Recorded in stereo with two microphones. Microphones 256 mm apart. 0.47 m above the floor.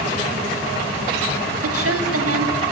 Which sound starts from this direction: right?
A woman speaking, at 1.6 s.